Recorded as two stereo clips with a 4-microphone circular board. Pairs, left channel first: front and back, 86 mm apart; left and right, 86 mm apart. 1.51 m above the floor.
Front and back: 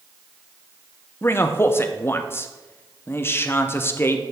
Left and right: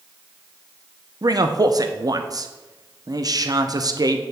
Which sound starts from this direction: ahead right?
A man speaking, at 1.2 s.